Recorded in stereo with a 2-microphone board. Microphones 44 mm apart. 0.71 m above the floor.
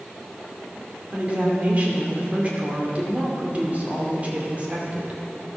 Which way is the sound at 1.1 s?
35° right (ahead or behind).